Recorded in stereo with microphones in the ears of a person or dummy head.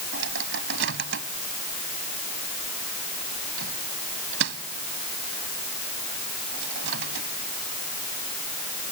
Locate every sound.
0.1 s a microwave: 70° right (ahead or behind)